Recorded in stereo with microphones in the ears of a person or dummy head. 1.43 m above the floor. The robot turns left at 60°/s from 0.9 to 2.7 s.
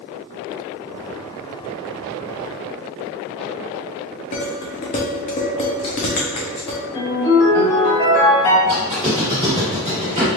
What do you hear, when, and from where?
4.3 s dishes clattering: 30° left (ahead or behind), 0.5 m
6.9 s a ringtone: 25° left (ahead or behind), 1.6 m
8.6 s a squeak: 30° right (ahead or behind), 1.7 m